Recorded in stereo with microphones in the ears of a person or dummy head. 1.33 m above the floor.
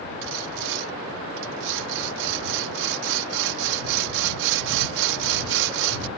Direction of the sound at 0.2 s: 65° right (ahead or behind).